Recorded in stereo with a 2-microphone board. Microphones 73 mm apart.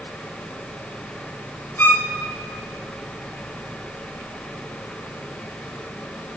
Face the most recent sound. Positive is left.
turn(degrees=25)  # may be behind; listen again after turning